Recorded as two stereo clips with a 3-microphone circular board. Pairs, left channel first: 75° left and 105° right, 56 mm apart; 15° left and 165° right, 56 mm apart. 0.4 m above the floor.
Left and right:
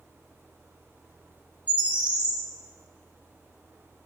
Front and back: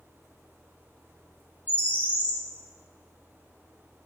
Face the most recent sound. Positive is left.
turn(degrees=-40)